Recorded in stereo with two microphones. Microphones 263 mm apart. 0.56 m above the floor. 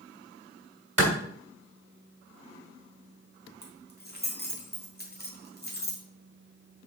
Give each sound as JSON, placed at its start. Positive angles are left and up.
{"t": 1.0, "sound": "a clap", "side_deg": -65, "distance_m": 2.0}
{"t": 3.6, "sound": "keys jangling", "side_deg": 35, "distance_m": 1.6}